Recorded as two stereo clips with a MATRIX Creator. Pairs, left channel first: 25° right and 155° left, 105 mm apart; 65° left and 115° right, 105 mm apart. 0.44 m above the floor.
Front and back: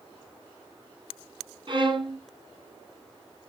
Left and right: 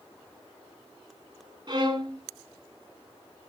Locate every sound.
1.7 s a violin: 160° right, 5 m